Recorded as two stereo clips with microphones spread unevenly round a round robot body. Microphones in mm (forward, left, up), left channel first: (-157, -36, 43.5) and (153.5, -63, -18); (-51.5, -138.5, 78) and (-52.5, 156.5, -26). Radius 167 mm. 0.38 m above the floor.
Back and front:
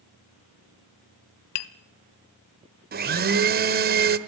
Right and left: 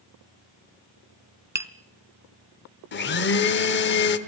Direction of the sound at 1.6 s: 170° left.